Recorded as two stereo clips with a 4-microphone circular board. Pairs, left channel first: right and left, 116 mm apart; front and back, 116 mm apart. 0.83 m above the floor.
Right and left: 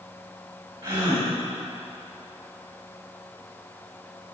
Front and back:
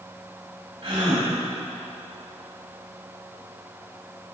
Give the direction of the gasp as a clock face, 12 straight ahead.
8 o'clock.